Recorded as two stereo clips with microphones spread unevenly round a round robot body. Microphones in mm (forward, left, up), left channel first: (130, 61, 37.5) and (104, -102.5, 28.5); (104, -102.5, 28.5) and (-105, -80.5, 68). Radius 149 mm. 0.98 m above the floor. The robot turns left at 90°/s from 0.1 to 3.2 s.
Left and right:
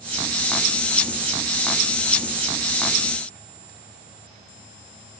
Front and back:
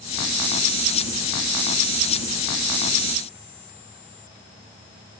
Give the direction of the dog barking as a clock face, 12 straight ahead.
No dog barking in this recording.